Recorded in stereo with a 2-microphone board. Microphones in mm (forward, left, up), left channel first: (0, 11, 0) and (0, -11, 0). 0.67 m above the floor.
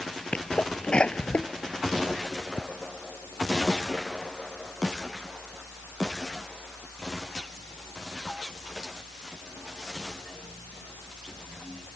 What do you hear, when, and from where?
0.3 s a sneeze: 60° left (ahead or behind)